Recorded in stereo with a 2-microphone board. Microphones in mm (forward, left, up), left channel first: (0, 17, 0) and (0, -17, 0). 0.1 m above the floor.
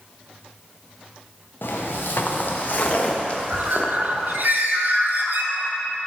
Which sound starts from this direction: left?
Footsteps, at 1.6 s.